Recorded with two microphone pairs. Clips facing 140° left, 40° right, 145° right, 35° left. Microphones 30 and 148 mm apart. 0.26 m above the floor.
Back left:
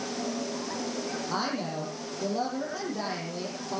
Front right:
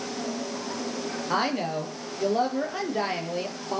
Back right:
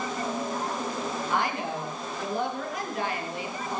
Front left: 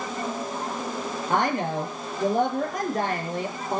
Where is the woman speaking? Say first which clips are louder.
Front right 7 dB, front left 7 dB; 5° right, 6 m.